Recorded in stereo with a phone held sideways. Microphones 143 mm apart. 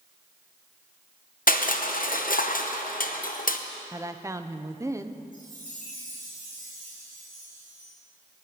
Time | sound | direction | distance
1.5 | crushing | 70° left (ahead or behind) | 0.9 m
3.9 | a woman speaking | 20° right (ahead or behind) | 0.7 m
5.3 | a chime | 65° right (ahead or behind) | 6 m